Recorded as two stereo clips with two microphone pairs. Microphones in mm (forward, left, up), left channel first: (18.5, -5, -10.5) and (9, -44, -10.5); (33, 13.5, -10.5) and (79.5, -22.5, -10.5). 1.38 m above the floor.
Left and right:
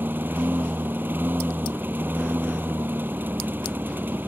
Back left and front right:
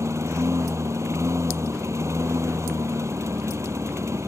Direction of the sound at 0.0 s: 70° right.